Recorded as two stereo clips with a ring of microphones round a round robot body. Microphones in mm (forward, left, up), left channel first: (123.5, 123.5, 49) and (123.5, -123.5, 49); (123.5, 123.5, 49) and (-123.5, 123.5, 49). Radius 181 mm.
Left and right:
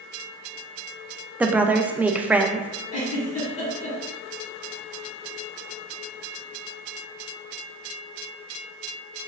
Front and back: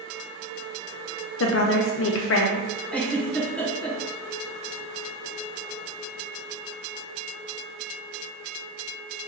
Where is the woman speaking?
5° right, 0.6 m.